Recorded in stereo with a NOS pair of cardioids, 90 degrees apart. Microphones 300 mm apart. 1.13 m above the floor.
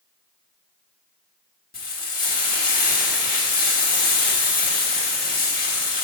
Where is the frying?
30° left, 2.5 m.